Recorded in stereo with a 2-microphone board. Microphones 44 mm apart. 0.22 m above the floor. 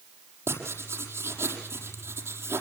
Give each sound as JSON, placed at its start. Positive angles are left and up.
{"t": 0.5, "sound": "writing", "side_deg": -75, "distance_m": 6.5}